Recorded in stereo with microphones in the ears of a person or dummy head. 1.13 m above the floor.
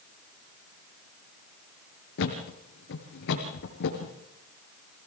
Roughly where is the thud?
Left.